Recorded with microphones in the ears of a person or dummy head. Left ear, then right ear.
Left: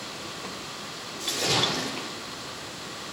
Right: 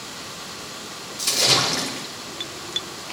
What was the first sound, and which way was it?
A splash, 50° right (ahead or behind).